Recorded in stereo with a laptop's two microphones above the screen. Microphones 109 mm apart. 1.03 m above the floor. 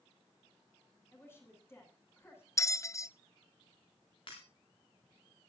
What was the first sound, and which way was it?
A woman speaking, 20° left (ahead or behind).